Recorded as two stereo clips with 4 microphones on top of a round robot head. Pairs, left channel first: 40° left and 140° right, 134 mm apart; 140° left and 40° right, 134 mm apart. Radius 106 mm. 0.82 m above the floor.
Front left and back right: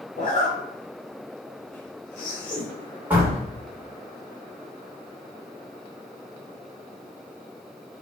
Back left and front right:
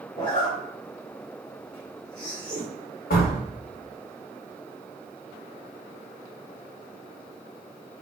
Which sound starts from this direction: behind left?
A door slam, at 3.1 s.